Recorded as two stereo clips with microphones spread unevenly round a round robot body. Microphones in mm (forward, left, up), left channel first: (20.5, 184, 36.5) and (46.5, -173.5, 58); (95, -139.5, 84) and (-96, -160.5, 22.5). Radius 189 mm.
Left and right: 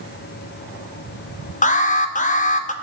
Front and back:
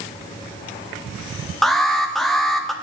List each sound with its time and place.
1.6 s an alarm: 130° left, 1.0 m